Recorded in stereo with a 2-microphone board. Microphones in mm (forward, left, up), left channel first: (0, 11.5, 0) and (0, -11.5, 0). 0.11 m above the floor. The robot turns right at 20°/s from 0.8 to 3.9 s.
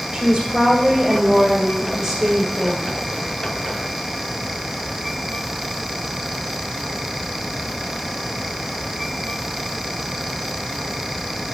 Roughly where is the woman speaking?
Ahead right.